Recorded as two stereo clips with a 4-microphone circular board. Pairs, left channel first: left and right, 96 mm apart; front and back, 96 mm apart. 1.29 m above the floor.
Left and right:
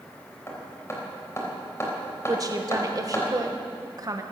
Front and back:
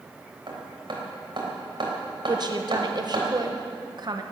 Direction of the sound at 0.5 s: 150° left.